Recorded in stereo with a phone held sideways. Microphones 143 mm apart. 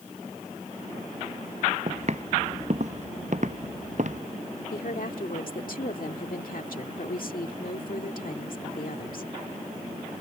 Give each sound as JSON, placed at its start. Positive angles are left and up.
{"t": 1.9, "sound": "footsteps", "side_deg": -50}
{"t": 4.7, "sound": "a woman speaking", "side_deg": 80}